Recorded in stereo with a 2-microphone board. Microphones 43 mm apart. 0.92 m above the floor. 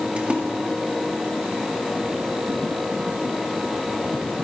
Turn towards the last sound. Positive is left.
turn(degrees=-30)  # may be behind; listen again after turning